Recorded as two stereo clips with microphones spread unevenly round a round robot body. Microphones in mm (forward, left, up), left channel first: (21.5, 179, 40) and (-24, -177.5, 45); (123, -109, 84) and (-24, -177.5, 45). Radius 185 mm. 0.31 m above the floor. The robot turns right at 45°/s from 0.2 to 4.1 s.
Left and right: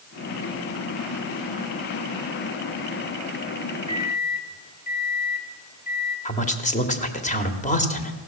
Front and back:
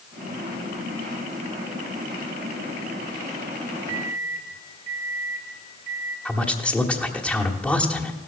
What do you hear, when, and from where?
3.9 s a microwave: 35° left, 3 m; by 6.2 s 45° left, 3 m
6.2 s a man speaking: 130° left, 1.2 m